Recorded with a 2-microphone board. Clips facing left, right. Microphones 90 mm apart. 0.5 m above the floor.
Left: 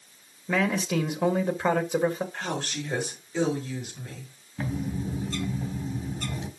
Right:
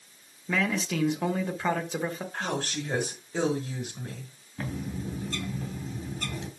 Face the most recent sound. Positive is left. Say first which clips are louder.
# left 4 dB
turn(degrees=5)  # may be behind; listen again after turning